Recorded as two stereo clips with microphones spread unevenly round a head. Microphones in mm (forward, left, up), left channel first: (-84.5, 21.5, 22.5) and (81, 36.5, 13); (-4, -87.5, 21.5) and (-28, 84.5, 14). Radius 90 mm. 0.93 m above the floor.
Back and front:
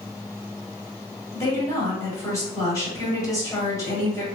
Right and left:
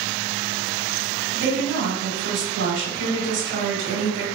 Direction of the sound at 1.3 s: 115° left.